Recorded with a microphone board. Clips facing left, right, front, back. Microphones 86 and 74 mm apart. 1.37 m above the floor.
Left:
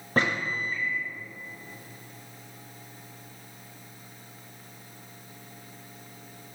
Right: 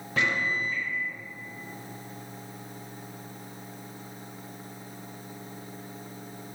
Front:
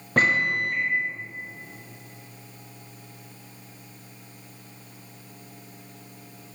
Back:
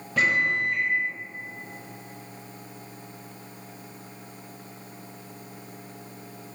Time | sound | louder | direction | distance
0.2 | a microwave | left 1 dB, front 1 dB | 40° left | 0.9 m